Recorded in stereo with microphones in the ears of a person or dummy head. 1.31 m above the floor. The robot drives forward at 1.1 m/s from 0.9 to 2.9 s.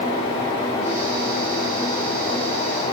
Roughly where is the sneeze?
No sneeze in this recording.